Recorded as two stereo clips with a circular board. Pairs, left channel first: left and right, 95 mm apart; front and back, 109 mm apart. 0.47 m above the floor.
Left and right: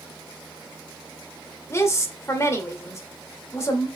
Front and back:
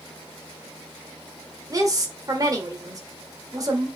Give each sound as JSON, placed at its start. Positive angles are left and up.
{"t": 1.7, "sound": "a woman speaking", "azimuth_deg": 140, "distance_m": 1.6}